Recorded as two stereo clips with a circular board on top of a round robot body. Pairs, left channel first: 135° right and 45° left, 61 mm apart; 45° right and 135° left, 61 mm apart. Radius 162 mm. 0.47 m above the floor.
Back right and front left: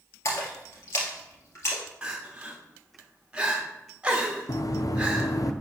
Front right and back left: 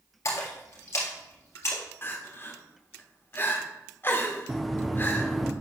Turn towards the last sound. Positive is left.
turn(degrees=-135)